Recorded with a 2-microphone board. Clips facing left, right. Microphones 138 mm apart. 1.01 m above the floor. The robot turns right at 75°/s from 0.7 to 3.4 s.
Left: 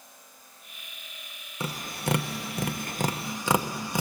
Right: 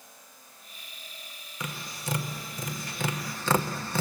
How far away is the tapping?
About 0.9 m.